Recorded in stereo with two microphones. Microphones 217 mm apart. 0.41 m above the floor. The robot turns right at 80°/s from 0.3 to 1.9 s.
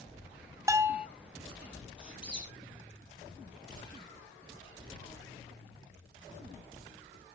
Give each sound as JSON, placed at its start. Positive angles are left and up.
{"t": 0.7, "sound": "a bell", "side_deg": -15, "distance_m": 1.0}
{"t": 2.0, "sound": "a squeak", "side_deg": -5, "distance_m": 4.0}